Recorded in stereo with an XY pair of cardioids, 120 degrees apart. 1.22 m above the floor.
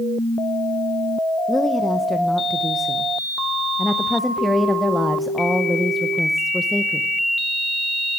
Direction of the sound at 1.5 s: 5° left.